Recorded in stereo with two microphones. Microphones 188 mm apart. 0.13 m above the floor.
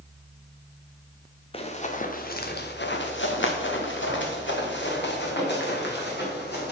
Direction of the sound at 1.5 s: 30° left (ahead or behind).